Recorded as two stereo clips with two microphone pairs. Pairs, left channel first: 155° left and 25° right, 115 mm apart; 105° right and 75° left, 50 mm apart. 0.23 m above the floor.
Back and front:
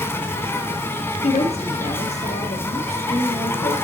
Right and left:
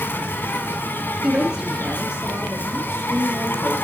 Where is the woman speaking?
150° left, 3.5 m.